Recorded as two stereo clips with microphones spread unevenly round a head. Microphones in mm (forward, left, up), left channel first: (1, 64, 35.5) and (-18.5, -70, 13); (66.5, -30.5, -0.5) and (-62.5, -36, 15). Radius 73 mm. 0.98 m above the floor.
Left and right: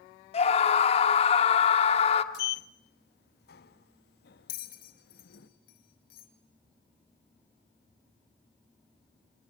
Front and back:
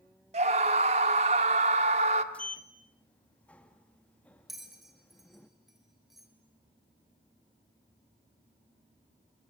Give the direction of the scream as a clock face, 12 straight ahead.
8 o'clock.